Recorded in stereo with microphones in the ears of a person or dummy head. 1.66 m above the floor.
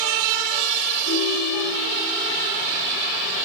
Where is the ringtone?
60° left (ahead or behind), 9.5 m.